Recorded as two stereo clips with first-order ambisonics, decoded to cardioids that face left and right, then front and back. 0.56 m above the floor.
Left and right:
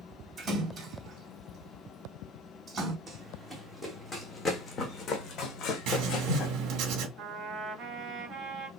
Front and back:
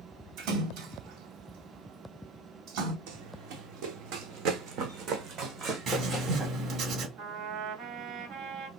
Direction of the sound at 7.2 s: 150° right.